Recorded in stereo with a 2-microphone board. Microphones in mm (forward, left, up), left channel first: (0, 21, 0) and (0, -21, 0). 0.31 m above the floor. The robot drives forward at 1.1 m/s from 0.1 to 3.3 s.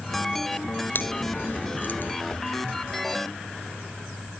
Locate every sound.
0.9 s a crack: 60° left (ahead or behind); by 2.2 s 50° left (ahead or behind)
2.3 s a whoosh: 25° left (ahead or behind)